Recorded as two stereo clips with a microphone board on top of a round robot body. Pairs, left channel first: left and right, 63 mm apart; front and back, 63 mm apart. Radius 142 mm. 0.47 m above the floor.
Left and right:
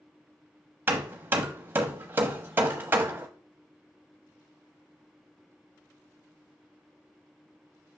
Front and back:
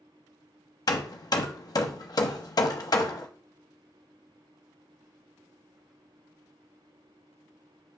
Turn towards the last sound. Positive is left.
turn(degrees=-25)